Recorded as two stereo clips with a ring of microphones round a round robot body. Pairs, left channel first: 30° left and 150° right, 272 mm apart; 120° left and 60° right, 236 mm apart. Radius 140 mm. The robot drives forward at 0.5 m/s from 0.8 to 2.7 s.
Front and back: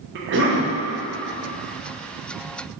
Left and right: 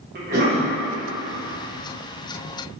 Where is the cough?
105° right, 1.2 m.